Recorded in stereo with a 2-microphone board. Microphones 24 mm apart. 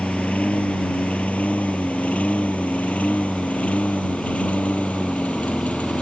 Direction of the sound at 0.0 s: 75° left (ahead or behind).